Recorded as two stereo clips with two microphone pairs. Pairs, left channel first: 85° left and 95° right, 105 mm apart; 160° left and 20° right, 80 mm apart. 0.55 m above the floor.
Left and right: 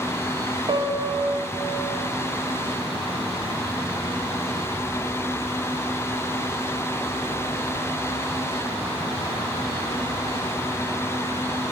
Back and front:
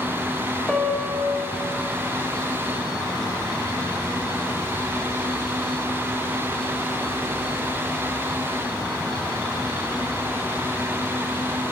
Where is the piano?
115° right, 0.6 m.